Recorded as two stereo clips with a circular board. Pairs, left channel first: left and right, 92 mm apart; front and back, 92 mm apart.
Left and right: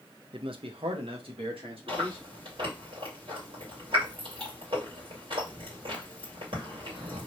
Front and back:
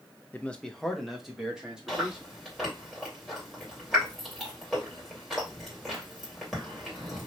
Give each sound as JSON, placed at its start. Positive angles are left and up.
{"t": 0.3, "sound": "a man speaking", "azimuth_deg": -70, "distance_m": 0.5}
{"t": 1.9, "sound": "chewing", "azimuth_deg": -90, "distance_m": 2.0}